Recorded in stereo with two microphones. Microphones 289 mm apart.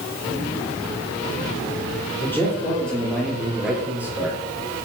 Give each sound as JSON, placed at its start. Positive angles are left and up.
{"t": 2.2, "sound": "a man speaking", "side_deg": 5, "distance_m": 5.0}